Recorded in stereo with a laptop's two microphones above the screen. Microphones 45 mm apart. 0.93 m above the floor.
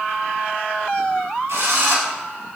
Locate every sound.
1.5 s a drill: 75° right (ahead or behind), 7 m